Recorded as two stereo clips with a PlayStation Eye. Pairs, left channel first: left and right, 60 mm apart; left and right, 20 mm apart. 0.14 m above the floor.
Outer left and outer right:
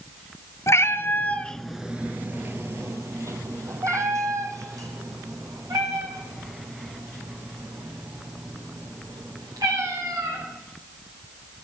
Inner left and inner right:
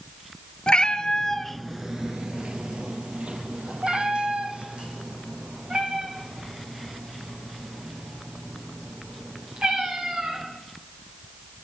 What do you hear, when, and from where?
0.7 s a cat meowing: 60° left (ahead or behind), 0.9 m; by 10.4 s 75° right (ahead or behind), 7 m